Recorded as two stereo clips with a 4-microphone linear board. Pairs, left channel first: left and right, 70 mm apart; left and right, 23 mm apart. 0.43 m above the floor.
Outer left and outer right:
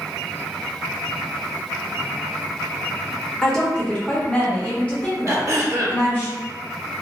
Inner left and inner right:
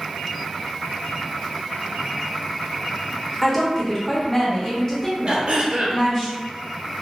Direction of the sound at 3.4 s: 10° left (ahead or behind).